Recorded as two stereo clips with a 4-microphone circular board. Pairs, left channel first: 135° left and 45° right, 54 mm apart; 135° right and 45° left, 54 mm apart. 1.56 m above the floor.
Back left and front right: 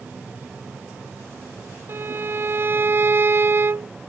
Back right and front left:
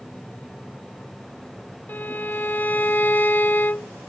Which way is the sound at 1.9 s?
85° right.